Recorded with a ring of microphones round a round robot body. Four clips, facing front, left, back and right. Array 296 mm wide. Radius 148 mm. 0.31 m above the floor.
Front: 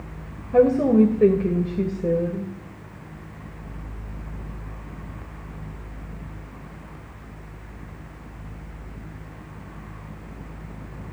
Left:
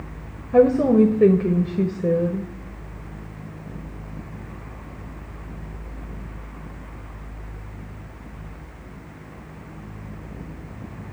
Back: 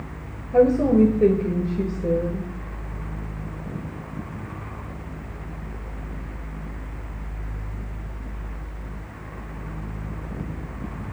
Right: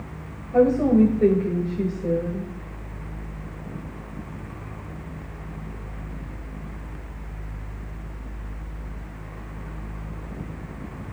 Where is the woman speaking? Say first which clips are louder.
Left 2 dB, even; 70° left, 1.3 m.